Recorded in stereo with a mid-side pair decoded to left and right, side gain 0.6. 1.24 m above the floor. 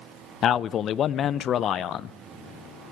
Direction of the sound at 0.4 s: 50° left.